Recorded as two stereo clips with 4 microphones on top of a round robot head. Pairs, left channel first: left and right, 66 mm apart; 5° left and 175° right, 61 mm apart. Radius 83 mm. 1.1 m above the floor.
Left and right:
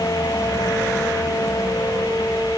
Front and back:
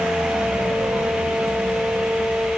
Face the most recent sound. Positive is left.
No sound to turn to.